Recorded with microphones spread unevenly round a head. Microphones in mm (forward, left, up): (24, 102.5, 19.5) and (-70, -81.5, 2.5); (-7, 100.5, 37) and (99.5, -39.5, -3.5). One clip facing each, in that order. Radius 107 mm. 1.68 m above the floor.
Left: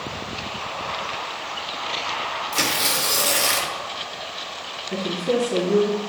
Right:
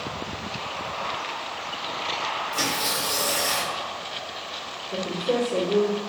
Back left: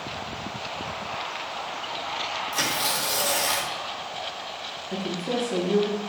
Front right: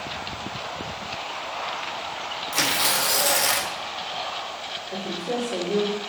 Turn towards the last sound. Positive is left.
turn(degrees=95)